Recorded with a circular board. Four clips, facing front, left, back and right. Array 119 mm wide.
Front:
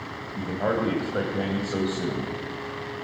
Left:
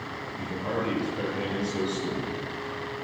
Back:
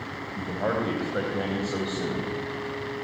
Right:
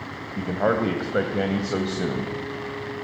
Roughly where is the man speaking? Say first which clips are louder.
Right 9 dB, front 2 dB; right.